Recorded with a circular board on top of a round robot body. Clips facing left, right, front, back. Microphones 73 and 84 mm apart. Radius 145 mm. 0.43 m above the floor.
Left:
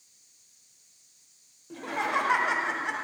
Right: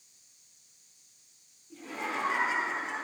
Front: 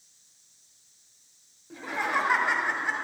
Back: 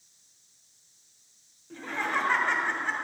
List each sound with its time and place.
1.7 s laughter: 80° left, 1.9 m